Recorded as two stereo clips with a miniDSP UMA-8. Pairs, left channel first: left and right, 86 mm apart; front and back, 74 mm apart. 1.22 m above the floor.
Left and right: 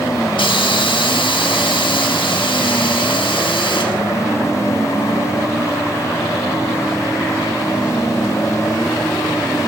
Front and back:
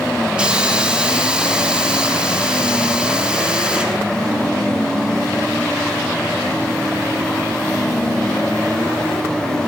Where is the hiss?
105° left, 3 m.